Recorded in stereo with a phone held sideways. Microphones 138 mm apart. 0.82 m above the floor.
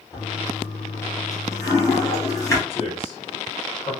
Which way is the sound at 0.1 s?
20° left (ahead or behind).